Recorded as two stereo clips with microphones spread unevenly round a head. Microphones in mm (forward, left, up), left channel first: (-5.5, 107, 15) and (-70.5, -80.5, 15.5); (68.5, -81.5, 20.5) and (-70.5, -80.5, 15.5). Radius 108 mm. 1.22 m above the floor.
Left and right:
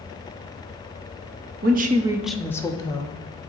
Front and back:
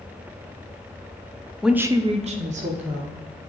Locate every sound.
1.6 s a woman speaking: 95° right, 0.7 m; by 3.2 s 135° left, 1.7 m